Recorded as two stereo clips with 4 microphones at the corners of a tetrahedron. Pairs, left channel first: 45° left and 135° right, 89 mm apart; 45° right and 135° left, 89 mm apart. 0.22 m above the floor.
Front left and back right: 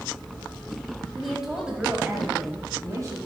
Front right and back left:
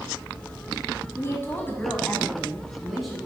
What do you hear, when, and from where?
1.1 s a woman speaking: 40° right, 1.7 m; by 3.2 s 140° right, 1.8 m